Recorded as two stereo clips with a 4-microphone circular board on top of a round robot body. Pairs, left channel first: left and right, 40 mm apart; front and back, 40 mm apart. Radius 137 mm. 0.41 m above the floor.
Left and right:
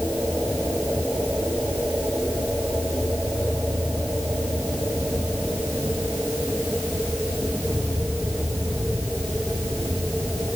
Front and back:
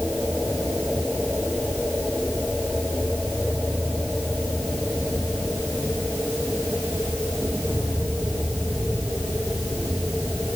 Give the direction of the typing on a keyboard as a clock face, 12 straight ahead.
I don't hear typing on a keyboard.